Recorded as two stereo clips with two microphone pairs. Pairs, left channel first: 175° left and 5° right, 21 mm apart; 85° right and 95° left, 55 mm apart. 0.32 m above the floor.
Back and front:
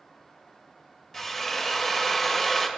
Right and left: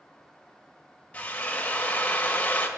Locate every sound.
1.1 s a drill: 125° right, 1.5 m